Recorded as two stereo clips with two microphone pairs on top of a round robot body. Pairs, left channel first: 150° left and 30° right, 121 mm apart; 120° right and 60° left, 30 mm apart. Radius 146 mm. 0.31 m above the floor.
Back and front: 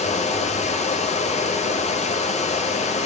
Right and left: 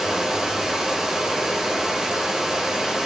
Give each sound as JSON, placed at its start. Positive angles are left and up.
{"t": 0.0, "sound": "running water", "azimuth_deg": 130, "distance_m": 0.8}